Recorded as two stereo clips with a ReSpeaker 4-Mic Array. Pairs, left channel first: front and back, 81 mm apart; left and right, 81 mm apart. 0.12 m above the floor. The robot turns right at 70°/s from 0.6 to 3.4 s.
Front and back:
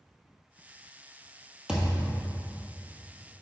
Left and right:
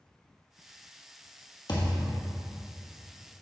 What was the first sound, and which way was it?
A thud, 100° left.